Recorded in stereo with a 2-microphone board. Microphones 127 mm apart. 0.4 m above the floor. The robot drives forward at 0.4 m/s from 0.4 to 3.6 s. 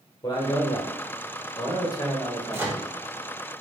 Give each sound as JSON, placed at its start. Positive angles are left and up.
{"t": 0.2, "sound": "a man speaking", "side_deg": 35, "distance_m": 0.9}
{"t": 2.5, "sound": "a microwave", "side_deg": -15, "distance_m": 0.8}